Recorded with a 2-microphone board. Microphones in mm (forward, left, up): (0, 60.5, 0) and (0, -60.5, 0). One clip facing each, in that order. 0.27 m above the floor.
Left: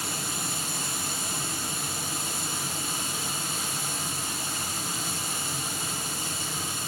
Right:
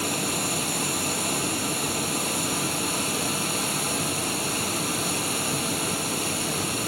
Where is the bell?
I don't hear a bell.